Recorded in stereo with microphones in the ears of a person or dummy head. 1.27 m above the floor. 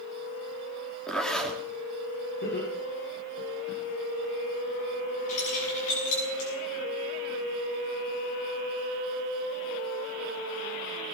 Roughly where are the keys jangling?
Left.